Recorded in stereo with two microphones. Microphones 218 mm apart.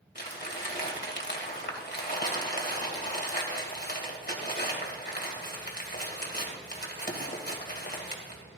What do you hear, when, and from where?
0.1 s crumpling: 50° left (ahead or behind), 2.5 m